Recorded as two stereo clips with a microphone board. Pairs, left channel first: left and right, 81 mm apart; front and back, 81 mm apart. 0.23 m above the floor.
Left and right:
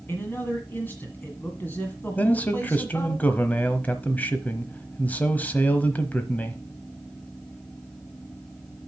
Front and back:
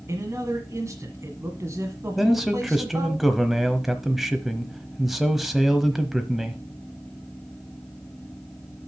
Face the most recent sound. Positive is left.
turn(degrees=95)